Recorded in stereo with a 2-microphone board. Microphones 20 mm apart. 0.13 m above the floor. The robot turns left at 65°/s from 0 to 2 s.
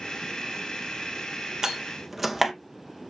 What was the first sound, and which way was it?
A door slam, 35° right (ahead or behind).